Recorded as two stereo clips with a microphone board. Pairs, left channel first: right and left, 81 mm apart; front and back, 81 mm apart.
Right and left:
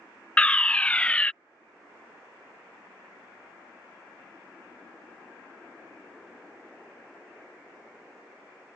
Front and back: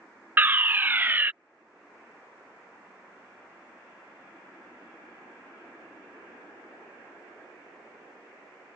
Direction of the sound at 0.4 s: 150° right.